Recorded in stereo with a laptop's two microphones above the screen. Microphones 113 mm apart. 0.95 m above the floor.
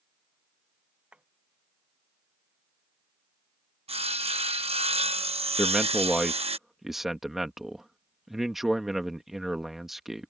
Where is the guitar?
I don't hear a guitar.